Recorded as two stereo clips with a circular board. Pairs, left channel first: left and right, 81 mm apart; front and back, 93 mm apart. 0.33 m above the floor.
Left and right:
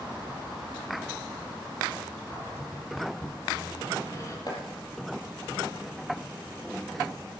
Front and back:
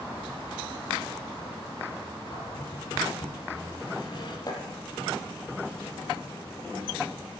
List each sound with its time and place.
2.3 s a cupboard door: 40° left, 6.5 m
4.5 s chopping: 50° left, 5.5 m